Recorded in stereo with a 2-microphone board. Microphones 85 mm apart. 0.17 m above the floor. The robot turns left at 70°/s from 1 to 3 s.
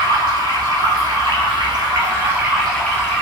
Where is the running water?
65° right, 1.3 m; by 3.2 s 155° left, 1.3 m.